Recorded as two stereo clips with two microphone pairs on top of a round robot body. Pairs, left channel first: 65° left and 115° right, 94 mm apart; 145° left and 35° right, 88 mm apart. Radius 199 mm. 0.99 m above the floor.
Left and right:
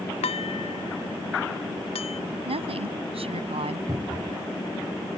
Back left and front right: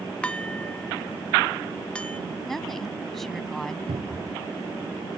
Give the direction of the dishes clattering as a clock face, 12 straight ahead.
10 o'clock.